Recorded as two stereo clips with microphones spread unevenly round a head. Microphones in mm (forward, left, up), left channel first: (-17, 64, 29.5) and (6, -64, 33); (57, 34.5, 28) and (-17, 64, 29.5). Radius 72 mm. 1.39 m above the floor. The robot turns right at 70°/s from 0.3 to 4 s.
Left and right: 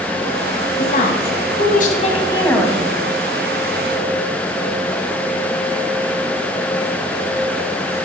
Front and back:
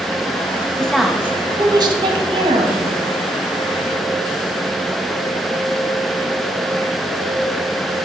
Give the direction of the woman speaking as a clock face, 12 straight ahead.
10 o'clock.